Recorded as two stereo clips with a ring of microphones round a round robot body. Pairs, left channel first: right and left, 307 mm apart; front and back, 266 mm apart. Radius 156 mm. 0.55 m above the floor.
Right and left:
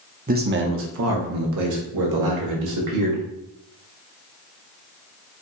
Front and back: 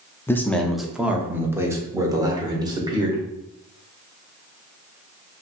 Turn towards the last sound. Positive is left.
turn(degrees=105)